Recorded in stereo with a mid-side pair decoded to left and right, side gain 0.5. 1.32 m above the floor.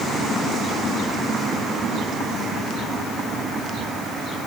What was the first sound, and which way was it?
Only background noise.